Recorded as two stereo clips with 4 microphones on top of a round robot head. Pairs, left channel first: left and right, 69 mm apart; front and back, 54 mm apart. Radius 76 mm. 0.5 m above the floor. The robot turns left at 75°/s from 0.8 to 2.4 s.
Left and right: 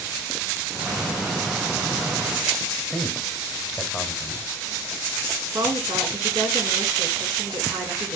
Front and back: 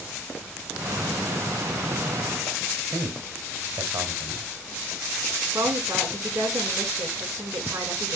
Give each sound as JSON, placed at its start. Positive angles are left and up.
{"t": 2.9, "sound": "a man speaking", "azimuth_deg": 180, "distance_m": 2.0}
{"t": 5.5, "sound": "a woman speaking", "azimuth_deg": -125, "distance_m": 7.0}